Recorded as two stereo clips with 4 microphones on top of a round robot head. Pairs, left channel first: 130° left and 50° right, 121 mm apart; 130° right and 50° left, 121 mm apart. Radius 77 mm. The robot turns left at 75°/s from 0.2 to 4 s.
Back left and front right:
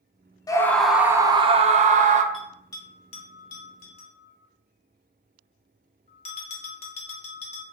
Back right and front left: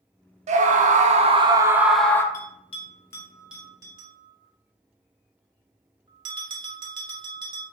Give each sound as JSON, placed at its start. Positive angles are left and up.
{"t": 0.5, "sound": "a scream", "azimuth_deg": 70, "distance_m": 0.5}
{"t": 2.3, "sound": "a bell", "azimuth_deg": -140, "distance_m": 0.6}